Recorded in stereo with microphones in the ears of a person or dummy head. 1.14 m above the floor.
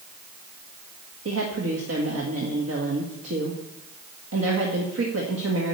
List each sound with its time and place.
1.2 s a woman speaking: 80° right, 1.8 m